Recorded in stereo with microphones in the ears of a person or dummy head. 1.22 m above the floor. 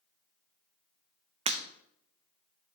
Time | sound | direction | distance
1.5 | breaking glass | 35° right (ahead or behind) | 0.7 m